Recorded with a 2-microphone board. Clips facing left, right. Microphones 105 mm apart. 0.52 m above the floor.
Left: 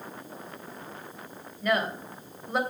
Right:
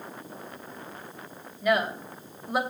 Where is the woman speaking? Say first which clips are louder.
Right 2 dB; 5° right (ahead or behind), 3 m.